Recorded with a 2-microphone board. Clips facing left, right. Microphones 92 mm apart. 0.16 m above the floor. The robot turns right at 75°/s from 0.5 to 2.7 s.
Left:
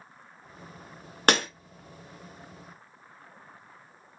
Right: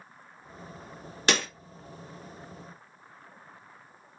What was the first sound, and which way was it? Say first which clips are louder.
Breaking glass: left 3 dB; 50° left (ahead or behind).